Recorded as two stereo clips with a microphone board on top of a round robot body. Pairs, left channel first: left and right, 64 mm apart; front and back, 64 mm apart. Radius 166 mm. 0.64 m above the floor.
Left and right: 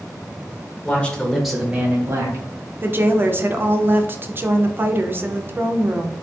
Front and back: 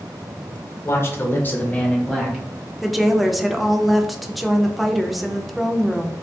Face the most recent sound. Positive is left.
turn(degrees=-90)